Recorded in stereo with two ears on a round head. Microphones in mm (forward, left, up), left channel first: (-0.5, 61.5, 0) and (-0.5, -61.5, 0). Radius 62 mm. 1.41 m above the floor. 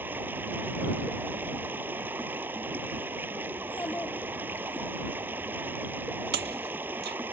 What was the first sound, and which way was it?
Running water, 15° right (ahead or behind).